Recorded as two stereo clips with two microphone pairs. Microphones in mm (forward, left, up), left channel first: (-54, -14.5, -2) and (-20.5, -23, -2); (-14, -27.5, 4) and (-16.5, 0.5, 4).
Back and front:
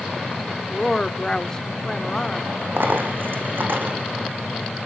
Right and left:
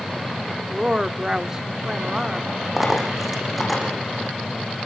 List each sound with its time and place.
0.7 s a woman speaking: 125° left, 0.7 m
2.8 s a dropped coin: 5° left, 6 m